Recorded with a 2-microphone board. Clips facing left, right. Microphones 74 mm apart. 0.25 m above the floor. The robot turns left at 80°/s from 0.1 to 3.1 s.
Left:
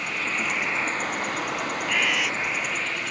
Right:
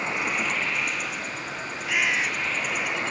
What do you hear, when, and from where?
0.0 s an insect: 155° right; by 3.1 s 35° right
1.9 s a bird: 5° right; by 2.3 s 40° right